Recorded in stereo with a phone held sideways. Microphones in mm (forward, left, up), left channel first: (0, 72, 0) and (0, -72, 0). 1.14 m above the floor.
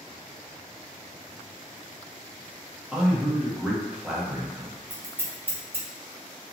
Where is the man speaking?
5° right (ahead or behind), 1.0 m.